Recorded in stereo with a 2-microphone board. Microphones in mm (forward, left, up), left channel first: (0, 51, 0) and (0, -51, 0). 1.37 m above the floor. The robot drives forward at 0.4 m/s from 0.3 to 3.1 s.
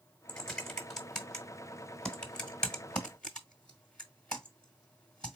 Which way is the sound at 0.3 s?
5° left (ahead or behind).